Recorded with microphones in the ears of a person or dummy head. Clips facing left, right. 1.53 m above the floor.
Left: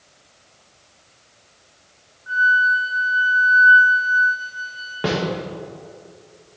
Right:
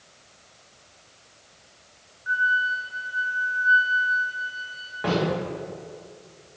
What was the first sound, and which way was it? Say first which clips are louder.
A flute: left 6 dB; 30° right (ahead or behind).